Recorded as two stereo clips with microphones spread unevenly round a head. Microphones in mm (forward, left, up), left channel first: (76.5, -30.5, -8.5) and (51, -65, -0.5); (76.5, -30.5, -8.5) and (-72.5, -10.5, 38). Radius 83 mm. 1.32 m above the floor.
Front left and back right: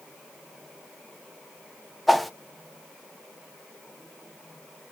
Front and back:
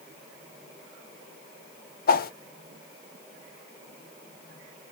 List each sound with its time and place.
2.1 s a whoosh: 40° right, 0.6 m